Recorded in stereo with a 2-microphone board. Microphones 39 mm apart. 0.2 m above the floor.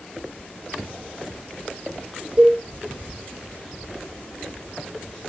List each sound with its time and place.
2.4 s a cowbell: 30° right (ahead or behind), 7 m